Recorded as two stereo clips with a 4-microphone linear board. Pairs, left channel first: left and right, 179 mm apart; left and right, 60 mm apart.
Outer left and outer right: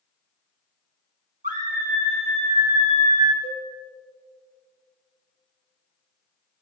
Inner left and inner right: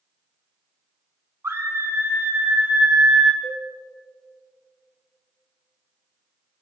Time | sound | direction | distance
1.4 | a scream | 50° right (ahead or behind) | 3 m
3.4 | a cowbell | 80° left | 4 m